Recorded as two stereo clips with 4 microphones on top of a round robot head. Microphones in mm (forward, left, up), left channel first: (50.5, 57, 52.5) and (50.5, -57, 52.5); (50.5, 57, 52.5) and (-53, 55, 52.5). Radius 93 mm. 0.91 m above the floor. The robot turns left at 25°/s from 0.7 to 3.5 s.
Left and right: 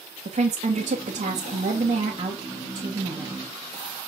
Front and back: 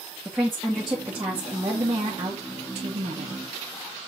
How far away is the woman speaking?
About 1.7 m.